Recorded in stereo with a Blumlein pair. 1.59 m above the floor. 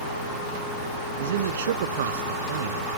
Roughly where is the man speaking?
Ahead right.